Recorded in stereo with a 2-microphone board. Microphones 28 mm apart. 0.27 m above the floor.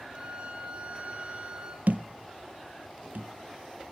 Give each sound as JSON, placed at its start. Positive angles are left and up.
{"t": 0.1, "sound": "a violin", "side_deg": -40, "distance_m": 1.1}
{"t": 1.9, "sound": "a thud", "side_deg": -70, "distance_m": 0.5}